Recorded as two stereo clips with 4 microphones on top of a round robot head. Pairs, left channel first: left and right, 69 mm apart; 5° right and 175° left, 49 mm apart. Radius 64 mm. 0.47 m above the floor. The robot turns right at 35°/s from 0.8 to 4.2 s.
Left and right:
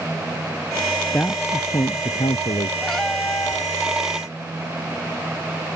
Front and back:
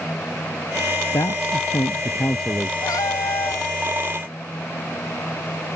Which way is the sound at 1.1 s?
20° left.